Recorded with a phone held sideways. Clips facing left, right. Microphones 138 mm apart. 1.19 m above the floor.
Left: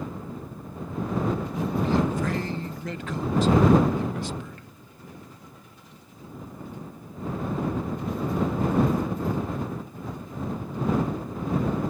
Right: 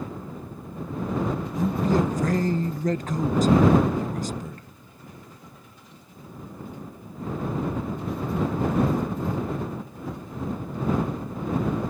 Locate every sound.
1.6 s a man speaking: 40° right (ahead or behind)